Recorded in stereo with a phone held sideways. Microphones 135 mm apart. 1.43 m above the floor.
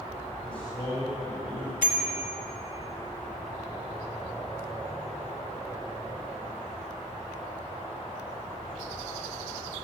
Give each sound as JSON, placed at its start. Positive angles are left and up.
{"t": 0.4, "sound": "a man speaking", "side_deg": 40, "distance_m": 7.0}
{"t": 1.8, "sound": "a bicycle bell", "side_deg": 80, "distance_m": 2.5}